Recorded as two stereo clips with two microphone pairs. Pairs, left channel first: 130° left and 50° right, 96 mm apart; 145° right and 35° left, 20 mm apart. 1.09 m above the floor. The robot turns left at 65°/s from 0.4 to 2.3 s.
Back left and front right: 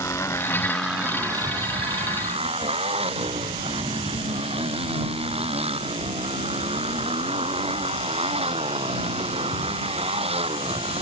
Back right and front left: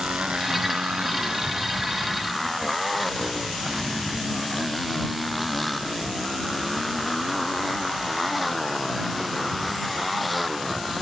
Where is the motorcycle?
70° left; by 11.0 s 55° right.